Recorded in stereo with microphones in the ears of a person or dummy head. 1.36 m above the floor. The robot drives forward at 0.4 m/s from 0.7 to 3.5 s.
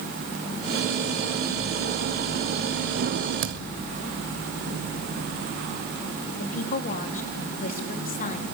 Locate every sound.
3.4 s a thud: 60° right (ahead or behind), 1.9 m
6.4 s a woman speaking: 50° left (ahead or behind), 3 m